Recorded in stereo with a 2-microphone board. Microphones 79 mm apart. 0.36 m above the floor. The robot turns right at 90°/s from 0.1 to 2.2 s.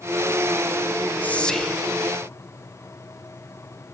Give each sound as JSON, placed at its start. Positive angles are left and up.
{"t": 1.2, "sound": "whispering", "azimuth_deg": 135, "distance_m": 0.9}